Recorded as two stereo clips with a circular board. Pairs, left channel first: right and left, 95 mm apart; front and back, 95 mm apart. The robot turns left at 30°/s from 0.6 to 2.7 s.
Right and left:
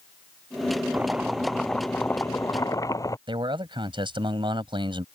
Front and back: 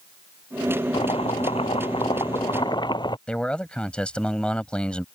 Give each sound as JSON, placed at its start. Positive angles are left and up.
{"t": 0.9, "sound": "chopping", "azimuth_deg": 15}
{"t": 3.3, "sound": "a man speaking", "azimuth_deg": 80}